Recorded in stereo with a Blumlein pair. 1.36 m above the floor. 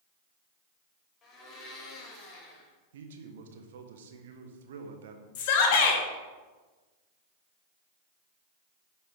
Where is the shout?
45° left, 1.4 m.